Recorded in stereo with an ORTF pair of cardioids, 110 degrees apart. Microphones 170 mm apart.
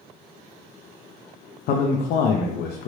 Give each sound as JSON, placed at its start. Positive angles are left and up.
{"t": 1.7, "sound": "a man speaking", "azimuth_deg": 70, "distance_m": 0.6}